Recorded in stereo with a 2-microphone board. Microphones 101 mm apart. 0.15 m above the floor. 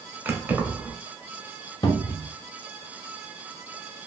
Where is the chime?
I don't hear a chime.